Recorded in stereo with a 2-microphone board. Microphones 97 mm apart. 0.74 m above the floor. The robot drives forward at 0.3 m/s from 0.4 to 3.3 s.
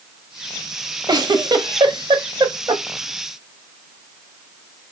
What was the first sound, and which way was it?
A giggle, 50° right (ahead or behind).